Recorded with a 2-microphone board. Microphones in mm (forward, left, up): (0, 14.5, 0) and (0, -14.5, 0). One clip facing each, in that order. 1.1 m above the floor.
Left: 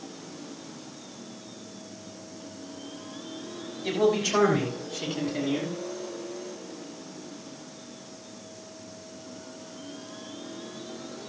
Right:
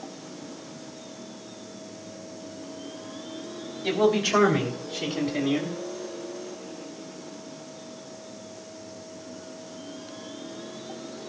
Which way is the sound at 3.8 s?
20° right (ahead or behind).